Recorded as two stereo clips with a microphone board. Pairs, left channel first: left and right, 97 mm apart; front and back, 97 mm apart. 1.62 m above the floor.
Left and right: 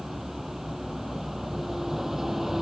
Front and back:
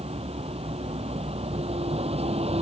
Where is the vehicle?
175° right.